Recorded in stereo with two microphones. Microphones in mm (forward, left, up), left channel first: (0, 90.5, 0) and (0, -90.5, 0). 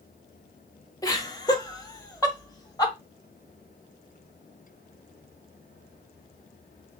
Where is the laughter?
20° left (ahead or behind), 1.0 m.